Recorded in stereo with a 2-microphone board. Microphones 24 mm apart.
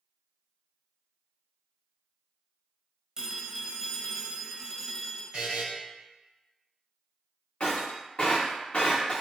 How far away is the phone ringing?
About 0.7 m.